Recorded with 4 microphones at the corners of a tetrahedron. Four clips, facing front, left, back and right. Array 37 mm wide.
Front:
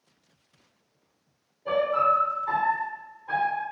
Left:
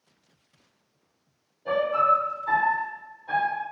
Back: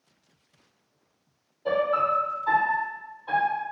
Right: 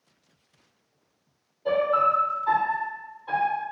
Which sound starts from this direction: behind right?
A piano, at 1.6 s.